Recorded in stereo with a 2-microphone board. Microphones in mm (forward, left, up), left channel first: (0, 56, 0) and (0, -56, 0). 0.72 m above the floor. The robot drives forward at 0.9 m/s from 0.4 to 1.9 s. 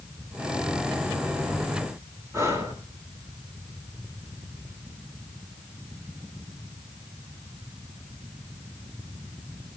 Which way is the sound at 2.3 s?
30° right (ahead or behind).